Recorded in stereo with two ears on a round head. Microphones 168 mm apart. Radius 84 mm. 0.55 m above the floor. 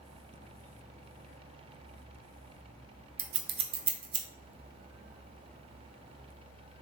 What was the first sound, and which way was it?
Scissors, 30° right (ahead or behind).